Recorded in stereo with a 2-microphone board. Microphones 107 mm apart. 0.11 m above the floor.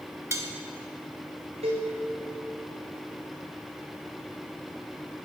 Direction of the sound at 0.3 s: 25° right (ahead or behind).